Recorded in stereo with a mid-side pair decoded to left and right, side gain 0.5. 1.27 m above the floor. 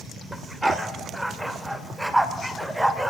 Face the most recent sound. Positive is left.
turn(degrees=-10)